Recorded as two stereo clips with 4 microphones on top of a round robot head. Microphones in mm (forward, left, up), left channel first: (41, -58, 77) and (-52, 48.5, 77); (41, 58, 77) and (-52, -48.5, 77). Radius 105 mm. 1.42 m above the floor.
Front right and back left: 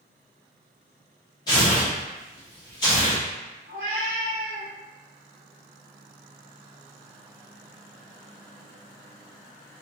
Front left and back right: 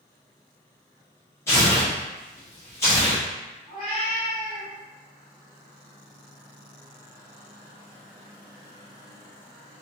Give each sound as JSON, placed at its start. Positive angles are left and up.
{"t": 1.5, "sound": "tearing paper", "azimuth_deg": -10, "distance_m": 0.6}
{"t": 3.7, "sound": "a cat meowing", "azimuth_deg": 145, "distance_m": 1.0}